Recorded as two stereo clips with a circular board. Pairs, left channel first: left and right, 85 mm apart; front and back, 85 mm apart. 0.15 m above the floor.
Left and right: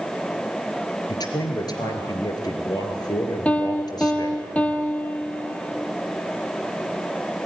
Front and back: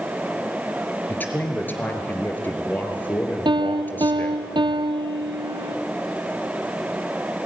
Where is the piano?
165° left, 1.2 m.